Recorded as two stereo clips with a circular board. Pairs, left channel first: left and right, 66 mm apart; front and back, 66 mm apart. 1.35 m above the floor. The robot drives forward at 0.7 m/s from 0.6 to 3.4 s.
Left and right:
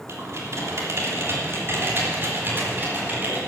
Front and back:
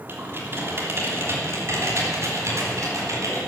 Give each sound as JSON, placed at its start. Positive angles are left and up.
{"t": 0.1, "sound": "typing on a keyboard", "azimuth_deg": -130, "distance_m": 3.0}